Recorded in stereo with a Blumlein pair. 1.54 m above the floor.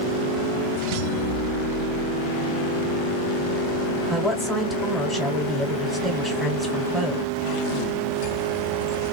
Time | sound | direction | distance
4.1 | a woman speaking | straight ahead | 1.7 m